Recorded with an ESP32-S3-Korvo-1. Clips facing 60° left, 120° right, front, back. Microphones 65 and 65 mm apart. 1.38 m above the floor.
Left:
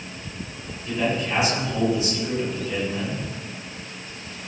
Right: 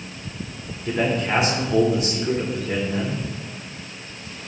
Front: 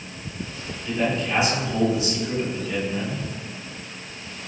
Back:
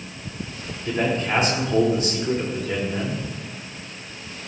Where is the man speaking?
140° right, 4 m.